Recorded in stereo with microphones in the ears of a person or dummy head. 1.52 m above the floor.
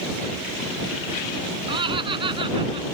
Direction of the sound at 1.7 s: 25° right (ahead or behind).